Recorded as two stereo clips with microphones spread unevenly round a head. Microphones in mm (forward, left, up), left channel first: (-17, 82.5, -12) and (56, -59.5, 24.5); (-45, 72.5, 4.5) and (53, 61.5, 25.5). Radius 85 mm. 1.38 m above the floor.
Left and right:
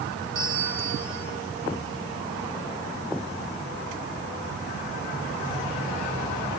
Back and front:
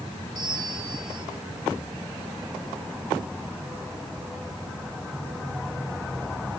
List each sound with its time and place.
0.3 s a bell: 70° right, 7 m